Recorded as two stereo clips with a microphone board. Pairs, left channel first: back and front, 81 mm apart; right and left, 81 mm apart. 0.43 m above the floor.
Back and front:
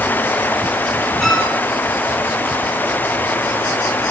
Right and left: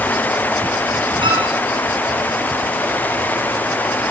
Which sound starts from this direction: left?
A violin, at 1.2 s.